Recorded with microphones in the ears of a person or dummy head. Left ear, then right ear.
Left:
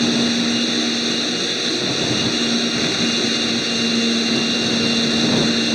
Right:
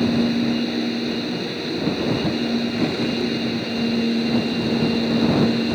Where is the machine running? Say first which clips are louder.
Left 3 dB; 45° left (ahead or behind).